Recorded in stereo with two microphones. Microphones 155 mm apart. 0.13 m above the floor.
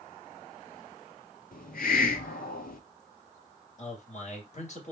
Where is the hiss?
75° left (ahead or behind), 0.5 m.